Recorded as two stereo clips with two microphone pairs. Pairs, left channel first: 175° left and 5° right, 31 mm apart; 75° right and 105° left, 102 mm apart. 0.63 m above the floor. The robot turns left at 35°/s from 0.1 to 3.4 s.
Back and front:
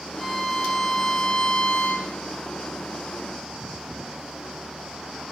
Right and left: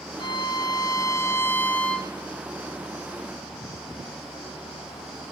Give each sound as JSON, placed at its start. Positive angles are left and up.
{"t": 0.2, "sound": "a violin", "azimuth_deg": -85, "distance_m": 0.6}